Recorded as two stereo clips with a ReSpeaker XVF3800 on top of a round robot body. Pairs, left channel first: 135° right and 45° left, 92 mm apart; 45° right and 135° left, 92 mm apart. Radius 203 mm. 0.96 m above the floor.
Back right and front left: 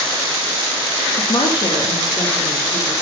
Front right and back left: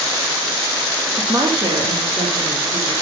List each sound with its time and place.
1.2 s a woman speaking: 155° right, 1.8 m; by 2.9 s 155° left, 3 m